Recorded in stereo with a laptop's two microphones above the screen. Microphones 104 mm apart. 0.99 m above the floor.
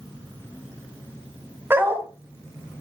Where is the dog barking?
20° right (ahead or behind), 3 m.